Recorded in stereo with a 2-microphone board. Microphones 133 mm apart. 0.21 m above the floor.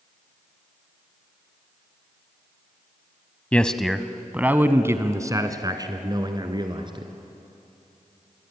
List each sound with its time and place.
3.5 s a man speaking: 10° left (ahead or behind), 1.0 m; by 7.1 s 40° right (ahead or behind), 2.5 m